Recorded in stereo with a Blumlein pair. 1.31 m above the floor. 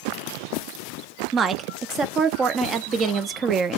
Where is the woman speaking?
25° right, 0.8 m.